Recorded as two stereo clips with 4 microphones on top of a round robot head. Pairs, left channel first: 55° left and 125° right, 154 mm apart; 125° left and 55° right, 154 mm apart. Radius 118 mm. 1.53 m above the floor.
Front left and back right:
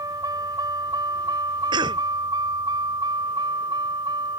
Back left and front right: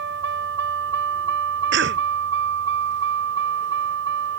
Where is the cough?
65° right.